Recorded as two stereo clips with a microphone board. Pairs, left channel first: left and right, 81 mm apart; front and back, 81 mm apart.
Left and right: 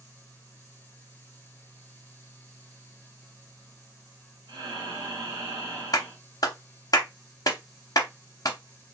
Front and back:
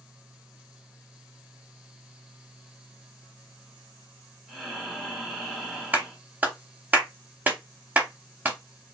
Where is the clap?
115° left, 0.7 m.